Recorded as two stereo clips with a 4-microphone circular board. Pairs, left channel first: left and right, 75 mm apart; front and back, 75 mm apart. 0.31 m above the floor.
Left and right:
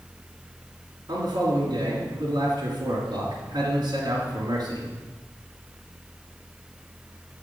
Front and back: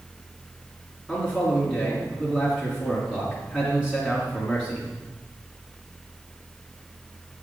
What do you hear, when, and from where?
1.1 s a man speaking: 100° right, 2.5 m